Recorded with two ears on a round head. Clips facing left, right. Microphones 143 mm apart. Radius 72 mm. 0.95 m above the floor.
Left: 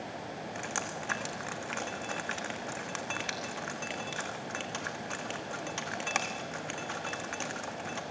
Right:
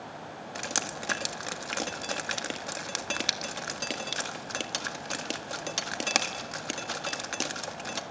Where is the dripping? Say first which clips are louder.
Right 4 dB; 45° right (ahead or behind), 1.5 m.